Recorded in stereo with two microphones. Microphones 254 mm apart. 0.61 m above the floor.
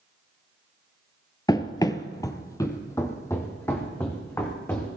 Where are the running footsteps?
15° left (ahead or behind), 0.6 m; by 4.9 s 10° left (ahead or behind), 2.5 m.